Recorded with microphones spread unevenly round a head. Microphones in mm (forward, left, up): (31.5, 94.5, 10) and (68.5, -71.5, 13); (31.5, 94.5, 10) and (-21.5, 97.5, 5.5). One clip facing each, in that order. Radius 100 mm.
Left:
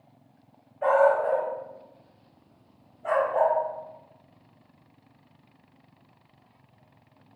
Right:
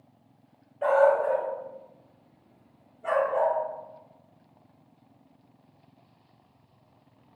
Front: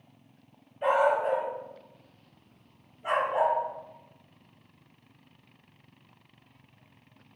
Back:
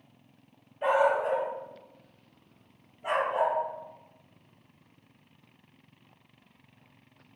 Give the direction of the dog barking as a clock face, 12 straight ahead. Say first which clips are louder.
Even, even; 3 o'clock.